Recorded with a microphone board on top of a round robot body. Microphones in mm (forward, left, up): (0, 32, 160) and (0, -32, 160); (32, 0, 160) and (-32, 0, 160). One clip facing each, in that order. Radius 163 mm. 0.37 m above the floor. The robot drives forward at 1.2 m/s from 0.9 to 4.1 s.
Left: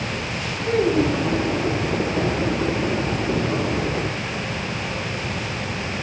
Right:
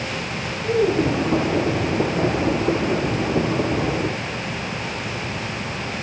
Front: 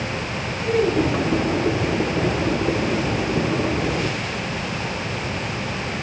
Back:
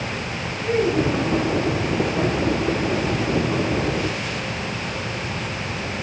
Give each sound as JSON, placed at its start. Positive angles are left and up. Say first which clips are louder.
{"t": 0.6, "sound": "a child speaking", "louder": "even, front 1 dB", "azimuth_deg": 90, "distance_m": 9.0}